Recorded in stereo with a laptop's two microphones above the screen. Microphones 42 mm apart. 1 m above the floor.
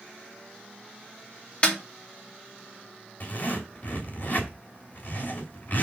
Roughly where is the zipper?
Left.